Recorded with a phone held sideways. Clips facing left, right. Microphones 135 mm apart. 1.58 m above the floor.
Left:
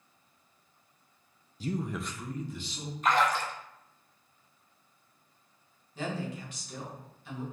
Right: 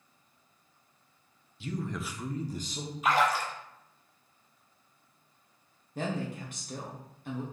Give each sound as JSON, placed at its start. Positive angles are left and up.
{"t": 1.6, "sound": "a man speaking", "side_deg": 40, "distance_m": 0.5}
{"t": 3.0, "sound": "a splash", "side_deg": -5, "distance_m": 0.8}
{"t": 6.0, "sound": "a woman speaking", "side_deg": -55, "distance_m": 1.4}